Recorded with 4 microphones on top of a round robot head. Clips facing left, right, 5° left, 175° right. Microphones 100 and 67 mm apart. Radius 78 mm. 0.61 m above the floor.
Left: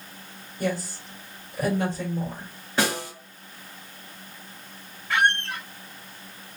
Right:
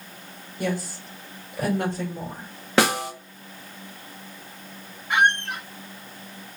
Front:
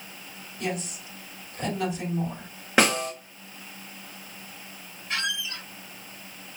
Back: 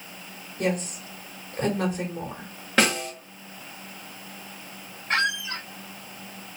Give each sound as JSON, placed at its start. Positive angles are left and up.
{"t": 0.6, "sound": "a woman speaking", "azimuth_deg": -130, "distance_m": 3.0}
{"t": 2.8, "sound": "a snare drum", "azimuth_deg": -75, "distance_m": 1.3}
{"t": 5.1, "sound": "a squeak", "azimuth_deg": -155, "distance_m": 0.6}